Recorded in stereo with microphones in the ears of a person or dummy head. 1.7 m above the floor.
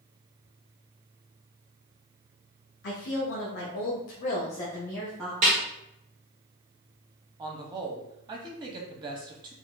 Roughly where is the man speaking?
Right.